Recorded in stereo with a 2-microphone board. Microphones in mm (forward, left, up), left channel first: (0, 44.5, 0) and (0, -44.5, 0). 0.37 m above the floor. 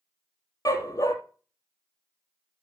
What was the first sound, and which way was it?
A dog barking, 40° left (ahead or behind).